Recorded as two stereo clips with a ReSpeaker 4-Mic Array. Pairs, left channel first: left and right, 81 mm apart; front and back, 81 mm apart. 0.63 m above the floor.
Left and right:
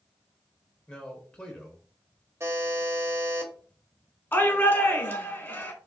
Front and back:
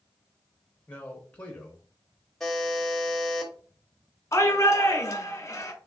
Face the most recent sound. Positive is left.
turn(degrees=40)